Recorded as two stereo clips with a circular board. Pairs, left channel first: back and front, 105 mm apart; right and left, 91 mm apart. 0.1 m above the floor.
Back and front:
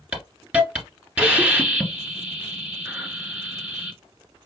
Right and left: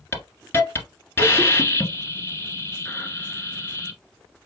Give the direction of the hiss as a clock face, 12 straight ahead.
2 o'clock.